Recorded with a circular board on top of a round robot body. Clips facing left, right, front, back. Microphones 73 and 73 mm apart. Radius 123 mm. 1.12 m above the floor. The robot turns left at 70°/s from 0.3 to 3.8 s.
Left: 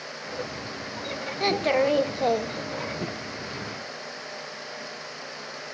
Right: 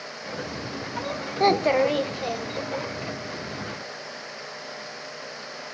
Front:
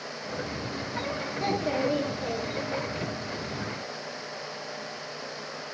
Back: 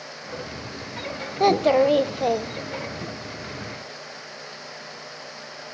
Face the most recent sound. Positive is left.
turn(degrees=45)